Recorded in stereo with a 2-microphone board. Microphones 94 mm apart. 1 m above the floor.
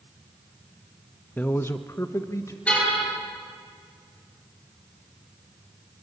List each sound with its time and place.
1.4 s a man speaking: 15° left (ahead or behind), 0.7 m; by 2.6 s 30° left (ahead or behind), 1.8 m
2.7 s a car horn: 15° left (ahead or behind), 9 m